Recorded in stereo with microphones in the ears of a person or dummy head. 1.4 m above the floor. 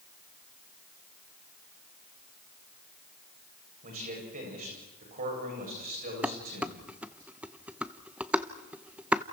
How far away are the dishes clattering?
About 0.7 m.